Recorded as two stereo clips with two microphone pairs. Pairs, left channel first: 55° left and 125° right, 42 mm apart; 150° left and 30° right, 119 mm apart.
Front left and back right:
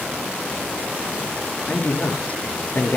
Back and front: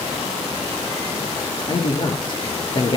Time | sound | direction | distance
1.7 | a man speaking | 105° left | 4 m